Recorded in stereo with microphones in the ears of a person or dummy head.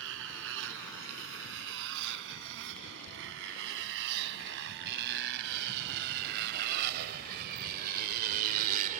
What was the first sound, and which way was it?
A motorcycle, 75° right (ahead or behind).